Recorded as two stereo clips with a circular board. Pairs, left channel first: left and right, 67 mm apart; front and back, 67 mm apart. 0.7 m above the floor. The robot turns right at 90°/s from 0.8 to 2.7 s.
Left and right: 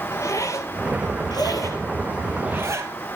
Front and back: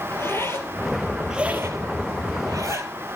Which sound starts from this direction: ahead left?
A zipper, at 0.1 s.